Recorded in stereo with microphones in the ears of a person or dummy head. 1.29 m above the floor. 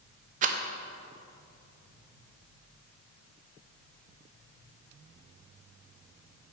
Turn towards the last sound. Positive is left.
turn(degrees=-40)  # may be behind; listen again after turning